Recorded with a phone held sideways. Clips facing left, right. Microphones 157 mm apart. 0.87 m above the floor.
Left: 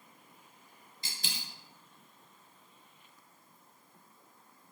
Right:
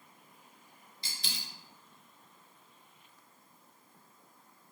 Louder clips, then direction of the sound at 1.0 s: Left 1 dB; 45° left (ahead or behind).